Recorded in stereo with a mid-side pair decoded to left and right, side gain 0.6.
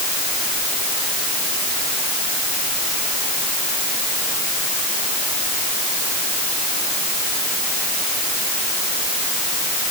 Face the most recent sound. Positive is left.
No sound to turn to.